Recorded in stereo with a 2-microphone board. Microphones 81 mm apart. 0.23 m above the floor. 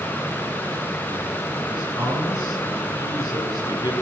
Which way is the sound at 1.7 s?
55° left (ahead or behind).